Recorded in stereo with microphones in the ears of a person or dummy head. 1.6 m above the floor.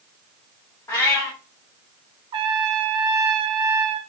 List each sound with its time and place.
0.9 s a cat meowing: 20° left (ahead or behind), 1.5 m
2.3 s a trumpet: 35° right (ahead or behind), 0.6 m